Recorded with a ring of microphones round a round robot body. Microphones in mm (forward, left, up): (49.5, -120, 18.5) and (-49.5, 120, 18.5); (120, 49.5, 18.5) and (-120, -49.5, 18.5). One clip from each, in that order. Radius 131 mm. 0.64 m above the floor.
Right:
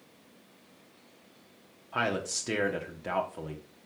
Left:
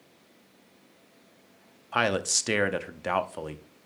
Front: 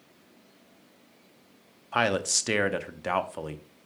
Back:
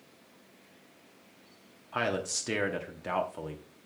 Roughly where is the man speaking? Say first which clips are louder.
Left 5 dB, front 6 dB; left.